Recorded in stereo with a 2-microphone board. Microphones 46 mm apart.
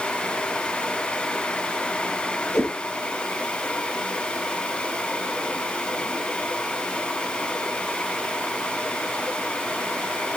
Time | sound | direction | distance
2.5 | a whoosh | 65° left (ahead or behind) | 3 m